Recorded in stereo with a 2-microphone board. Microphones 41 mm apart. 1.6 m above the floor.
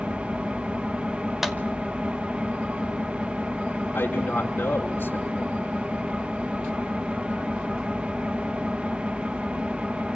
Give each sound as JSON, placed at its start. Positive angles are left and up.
{"t": 0.0, "sound": "an engine running", "side_deg": -30, "distance_m": 1.8}
{"t": 1.4, "sound": "a clap", "side_deg": -5, "distance_m": 2.0}
{"t": 3.9, "sound": "a man speaking", "side_deg": 50, "distance_m": 5.5}